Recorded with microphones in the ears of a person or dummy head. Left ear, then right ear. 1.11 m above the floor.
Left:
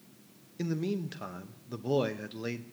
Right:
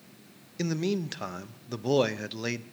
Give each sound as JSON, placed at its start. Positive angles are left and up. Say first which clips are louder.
{"t": 0.6, "sound": "a man speaking", "louder": "right 4 dB", "side_deg": -25, "distance_m": 0.6}